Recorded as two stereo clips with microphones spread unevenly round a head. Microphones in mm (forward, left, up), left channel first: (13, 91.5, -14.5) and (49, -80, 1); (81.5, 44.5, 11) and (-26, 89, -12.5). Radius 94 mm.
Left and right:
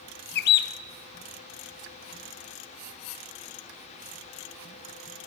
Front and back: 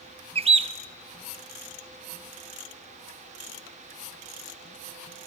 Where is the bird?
135° left, 0.6 m.